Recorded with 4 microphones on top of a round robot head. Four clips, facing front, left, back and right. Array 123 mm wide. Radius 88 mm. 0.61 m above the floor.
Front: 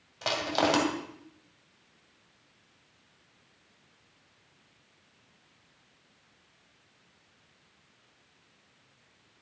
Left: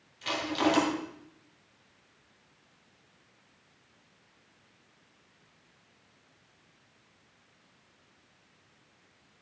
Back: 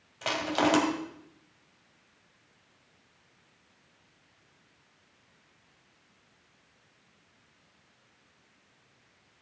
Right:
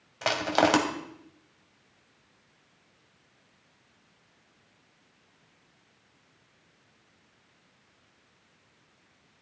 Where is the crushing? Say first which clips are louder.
Right 4 dB, even; 85° right, 2.5 m.